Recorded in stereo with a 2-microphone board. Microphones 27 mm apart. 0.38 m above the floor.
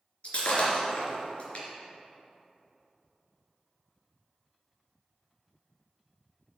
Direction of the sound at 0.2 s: 50° left (ahead or behind).